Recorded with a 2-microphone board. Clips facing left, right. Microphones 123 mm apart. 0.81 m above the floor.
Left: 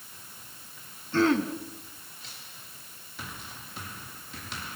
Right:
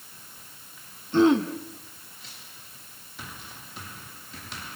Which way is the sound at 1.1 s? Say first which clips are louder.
Right 4 dB; 20° right (ahead or behind).